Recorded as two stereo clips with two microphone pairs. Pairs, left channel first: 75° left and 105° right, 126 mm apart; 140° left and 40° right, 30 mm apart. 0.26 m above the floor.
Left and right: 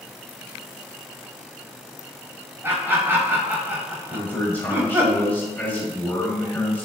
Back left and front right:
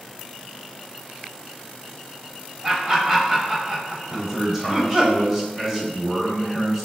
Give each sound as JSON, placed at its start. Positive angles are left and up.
{"t": 2.6, "sound": "laughter", "azimuth_deg": -55, "distance_m": 1.0}
{"t": 4.1, "sound": "a man speaking", "azimuth_deg": 25, "distance_m": 0.9}